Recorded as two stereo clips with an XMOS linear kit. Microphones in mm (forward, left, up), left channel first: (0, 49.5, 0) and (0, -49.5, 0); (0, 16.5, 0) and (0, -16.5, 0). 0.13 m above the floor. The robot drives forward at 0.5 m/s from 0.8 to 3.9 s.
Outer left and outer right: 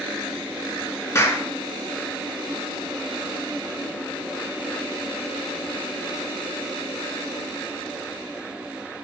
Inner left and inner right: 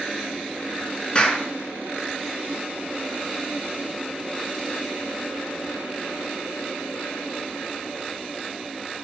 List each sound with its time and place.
1.1 s a clap: 30° left (ahead or behind), 1.6 m